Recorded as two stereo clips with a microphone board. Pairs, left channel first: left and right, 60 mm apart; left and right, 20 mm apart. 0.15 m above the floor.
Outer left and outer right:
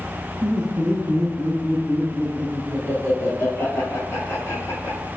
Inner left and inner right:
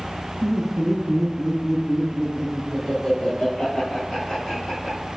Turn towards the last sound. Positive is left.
turn(degrees=40)  # may be behind; listen again after turning